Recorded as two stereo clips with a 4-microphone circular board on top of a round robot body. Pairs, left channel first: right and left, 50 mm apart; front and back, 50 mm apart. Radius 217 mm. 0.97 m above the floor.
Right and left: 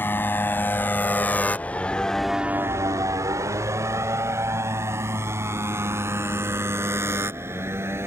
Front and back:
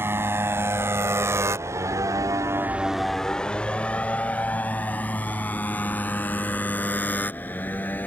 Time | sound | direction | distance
0.0 | a motorcycle | 140° right | ?